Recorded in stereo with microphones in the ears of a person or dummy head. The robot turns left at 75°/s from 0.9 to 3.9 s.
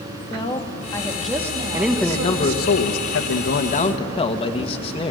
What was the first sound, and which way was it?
A woman speaking, 25° left.